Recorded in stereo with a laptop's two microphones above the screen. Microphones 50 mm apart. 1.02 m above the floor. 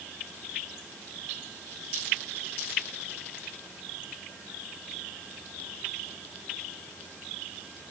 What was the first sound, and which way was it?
Only background noise.